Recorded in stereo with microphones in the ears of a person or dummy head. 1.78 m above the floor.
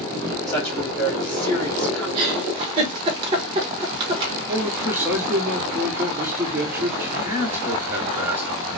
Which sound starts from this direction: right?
A giggle, at 2.1 s.